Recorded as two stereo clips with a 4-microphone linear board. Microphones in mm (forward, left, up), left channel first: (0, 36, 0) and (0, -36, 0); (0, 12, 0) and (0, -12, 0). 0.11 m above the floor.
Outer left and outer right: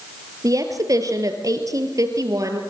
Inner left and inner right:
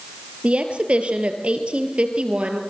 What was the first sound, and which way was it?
A woman speaking, 55° right (ahead or behind).